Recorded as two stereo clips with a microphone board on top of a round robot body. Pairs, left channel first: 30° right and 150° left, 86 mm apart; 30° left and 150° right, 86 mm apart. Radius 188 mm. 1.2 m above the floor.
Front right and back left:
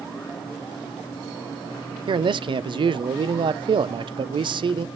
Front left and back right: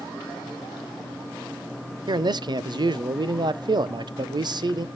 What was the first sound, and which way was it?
A man speaking, 175° left.